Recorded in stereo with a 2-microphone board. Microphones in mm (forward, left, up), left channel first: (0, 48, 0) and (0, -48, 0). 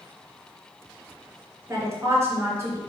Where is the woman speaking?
30° right (ahead or behind), 3 m.